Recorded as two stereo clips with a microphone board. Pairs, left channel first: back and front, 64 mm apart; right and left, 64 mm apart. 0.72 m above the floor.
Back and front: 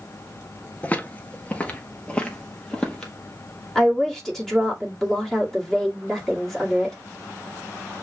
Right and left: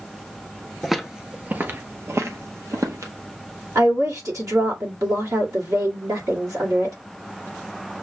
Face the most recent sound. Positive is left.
turn(degrees=95)